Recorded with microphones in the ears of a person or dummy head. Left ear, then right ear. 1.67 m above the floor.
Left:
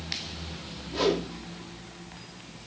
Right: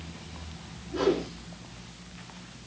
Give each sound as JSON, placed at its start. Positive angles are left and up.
{"t": 0.9, "sound": "a whoosh", "side_deg": 40, "distance_m": 3.5}